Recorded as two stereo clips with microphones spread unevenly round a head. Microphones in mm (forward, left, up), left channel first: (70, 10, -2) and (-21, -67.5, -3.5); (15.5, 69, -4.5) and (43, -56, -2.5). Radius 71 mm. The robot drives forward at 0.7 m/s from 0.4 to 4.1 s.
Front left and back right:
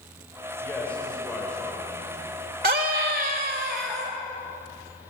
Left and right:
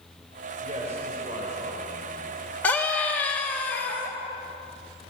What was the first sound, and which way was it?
A man speaking, 35° right.